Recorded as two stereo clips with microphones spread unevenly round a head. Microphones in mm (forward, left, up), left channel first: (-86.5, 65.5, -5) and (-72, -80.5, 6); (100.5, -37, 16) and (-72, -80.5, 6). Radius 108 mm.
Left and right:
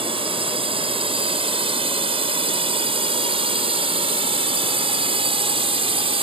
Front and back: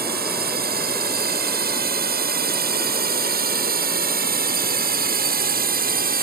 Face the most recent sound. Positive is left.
turn(degrees=-135)